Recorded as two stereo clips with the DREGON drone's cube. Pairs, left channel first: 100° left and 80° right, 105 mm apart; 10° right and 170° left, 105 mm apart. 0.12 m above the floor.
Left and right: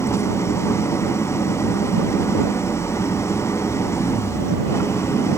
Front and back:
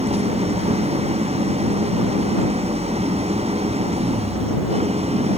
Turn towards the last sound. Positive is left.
turn(degrees=165)